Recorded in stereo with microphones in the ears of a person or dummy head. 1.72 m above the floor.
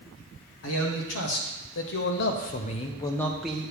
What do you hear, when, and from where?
0.6 s a man speaking: 70° left (ahead or behind), 1.8 m; by 3.7 s 10° right (ahead or behind), 0.8 m